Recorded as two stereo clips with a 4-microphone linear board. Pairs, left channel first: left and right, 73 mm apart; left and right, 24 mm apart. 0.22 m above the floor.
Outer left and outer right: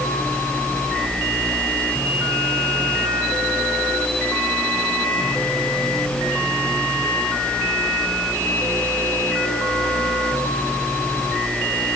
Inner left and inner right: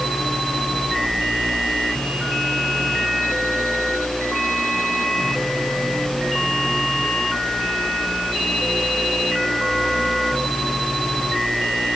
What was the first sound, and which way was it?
Only background noise.